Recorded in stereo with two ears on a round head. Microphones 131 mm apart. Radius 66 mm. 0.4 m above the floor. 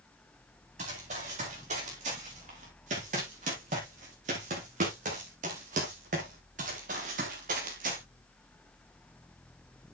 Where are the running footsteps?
50° right (ahead or behind), 8.5 m; by 8.0 s 60° right (ahead or behind), 4 m.